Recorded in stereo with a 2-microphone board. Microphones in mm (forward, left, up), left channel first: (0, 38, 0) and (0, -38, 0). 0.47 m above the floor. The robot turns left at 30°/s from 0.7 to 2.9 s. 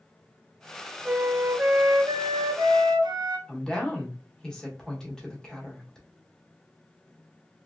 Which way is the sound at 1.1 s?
20° right.